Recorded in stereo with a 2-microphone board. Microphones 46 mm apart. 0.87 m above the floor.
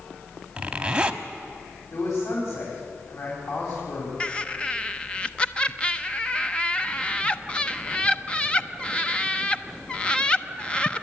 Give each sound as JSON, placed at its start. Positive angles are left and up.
{"t": 0.6, "sound": "a zipper", "side_deg": -20, "distance_m": 0.9}
{"t": 1.9, "sound": "a man speaking", "side_deg": 70, "distance_m": 5.0}
{"t": 4.2, "sound": "laughter", "side_deg": 20, "distance_m": 0.7}